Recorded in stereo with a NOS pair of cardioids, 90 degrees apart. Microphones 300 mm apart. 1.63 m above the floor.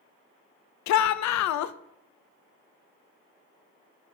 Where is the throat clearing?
I don't hear throat clearing.